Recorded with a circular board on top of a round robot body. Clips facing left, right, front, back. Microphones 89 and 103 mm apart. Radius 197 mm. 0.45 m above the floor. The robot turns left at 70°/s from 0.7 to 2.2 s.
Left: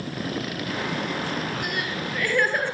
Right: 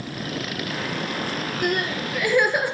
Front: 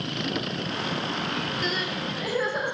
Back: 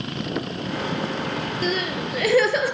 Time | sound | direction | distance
1.6 | crying | 130° right | 3 m